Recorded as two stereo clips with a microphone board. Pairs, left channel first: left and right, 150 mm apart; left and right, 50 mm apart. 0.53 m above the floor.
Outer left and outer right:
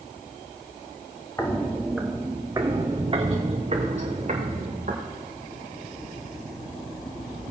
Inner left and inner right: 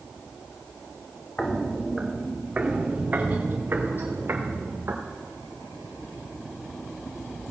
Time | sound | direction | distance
1.4 | footsteps | 20° left (ahead or behind) | 1.9 m